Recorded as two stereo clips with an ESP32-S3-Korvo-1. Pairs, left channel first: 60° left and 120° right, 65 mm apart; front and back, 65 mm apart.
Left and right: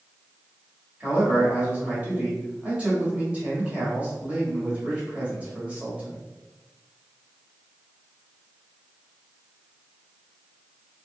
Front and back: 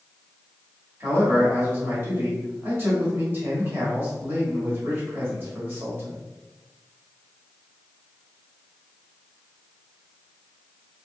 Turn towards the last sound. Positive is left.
turn(degrees=-175)